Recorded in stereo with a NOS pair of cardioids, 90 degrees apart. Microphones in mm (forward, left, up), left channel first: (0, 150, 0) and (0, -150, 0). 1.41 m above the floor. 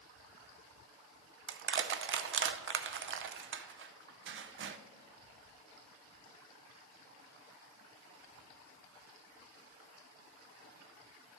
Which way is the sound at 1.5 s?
45° right.